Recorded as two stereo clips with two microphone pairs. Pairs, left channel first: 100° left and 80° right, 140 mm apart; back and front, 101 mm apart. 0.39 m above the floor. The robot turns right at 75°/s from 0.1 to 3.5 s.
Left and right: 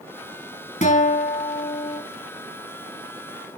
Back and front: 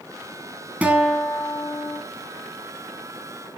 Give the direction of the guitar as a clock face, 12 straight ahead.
10 o'clock.